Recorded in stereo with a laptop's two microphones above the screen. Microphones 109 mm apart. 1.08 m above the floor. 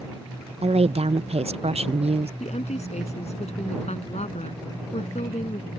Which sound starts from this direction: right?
A woman speaking, at 0.6 s.